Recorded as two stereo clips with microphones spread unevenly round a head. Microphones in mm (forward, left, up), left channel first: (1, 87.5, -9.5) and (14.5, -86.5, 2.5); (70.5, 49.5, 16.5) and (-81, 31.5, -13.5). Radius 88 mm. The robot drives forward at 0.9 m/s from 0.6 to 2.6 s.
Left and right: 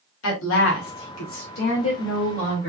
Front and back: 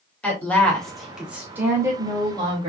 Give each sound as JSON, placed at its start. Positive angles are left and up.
{"t": 0.2, "sound": "a woman speaking", "azimuth_deg": 85, "distance_m": 2.5}